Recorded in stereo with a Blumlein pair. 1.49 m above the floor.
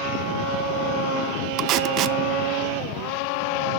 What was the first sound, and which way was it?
Tape being pulled, 35° right.